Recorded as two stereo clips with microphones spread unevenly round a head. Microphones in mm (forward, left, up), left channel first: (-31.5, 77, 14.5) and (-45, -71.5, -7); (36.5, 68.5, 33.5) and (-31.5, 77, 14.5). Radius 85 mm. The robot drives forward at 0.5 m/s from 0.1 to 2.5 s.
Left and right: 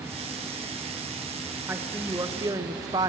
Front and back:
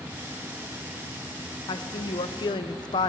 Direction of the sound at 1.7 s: 15° right.